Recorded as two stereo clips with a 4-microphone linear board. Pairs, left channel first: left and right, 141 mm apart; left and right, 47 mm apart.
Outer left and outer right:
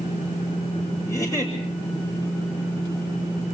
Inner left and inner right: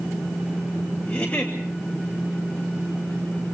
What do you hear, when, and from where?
1.1 s a giggle: 25° left (ahead or behind), 7.5 m